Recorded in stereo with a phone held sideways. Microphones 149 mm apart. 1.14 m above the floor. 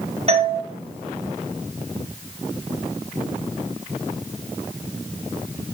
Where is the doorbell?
40° right (ahead or behind), 1.6 m.